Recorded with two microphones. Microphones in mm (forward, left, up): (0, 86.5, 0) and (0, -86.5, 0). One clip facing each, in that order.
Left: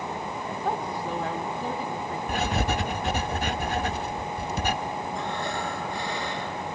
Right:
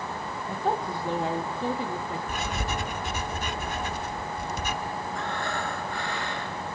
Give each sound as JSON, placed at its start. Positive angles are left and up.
{"t": 0.5, "sound": "a woman speaking", "side_deg": -25, "distance_m": 1.2}
{"t": 2.3, "sound": "writing", "side_deg": 65, "distance_m": 1.0}
{"t": 5.2, "sound": "breathing", "side_deg": 15, "distance_m": 5.0}